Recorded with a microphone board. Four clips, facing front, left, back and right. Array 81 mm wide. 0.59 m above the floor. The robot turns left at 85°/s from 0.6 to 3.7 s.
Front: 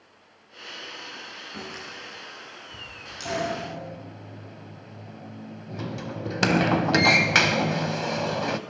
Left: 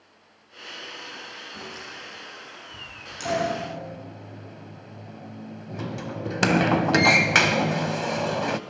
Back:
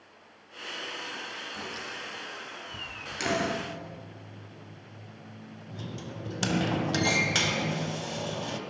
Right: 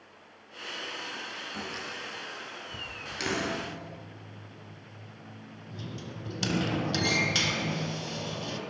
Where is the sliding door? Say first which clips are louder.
Left 7 dB, front 1 dB; 95° left, 1.1 m; by 8.6 s 55° left, 1.1 m.